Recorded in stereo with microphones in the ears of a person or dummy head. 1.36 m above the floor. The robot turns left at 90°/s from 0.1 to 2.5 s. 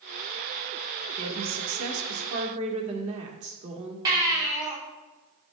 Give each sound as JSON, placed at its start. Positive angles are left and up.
{"t": 1.2, "sound": "a woman speaking", "azimuth_deg": -25, "distance_m": 1.5}
{"t": 4.0, "sound": "a baby crying", "side_deg": -25, "distance_m": 2.5}